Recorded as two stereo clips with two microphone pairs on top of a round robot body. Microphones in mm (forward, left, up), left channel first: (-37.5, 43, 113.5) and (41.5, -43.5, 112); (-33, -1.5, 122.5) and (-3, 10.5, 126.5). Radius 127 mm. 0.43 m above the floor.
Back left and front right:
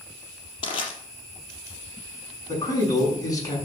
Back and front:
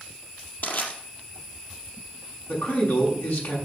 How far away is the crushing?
About 4 m.